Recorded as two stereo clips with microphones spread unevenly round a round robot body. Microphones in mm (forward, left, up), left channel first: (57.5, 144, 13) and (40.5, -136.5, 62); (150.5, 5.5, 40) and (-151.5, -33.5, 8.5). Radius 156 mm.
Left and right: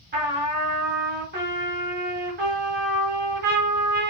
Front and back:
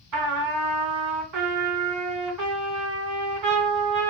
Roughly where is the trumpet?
Behind right.